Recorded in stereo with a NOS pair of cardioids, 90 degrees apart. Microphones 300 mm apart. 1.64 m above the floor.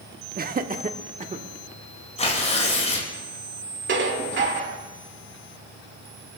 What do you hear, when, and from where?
0.4 s laughter: 30° right, 1.2 m; by 1.4 s 25° right, 1.9 m
2.2 s tearing paper: 20° left, 6.5 m
3.9 s dishes clattering: 40° right, 2.5 m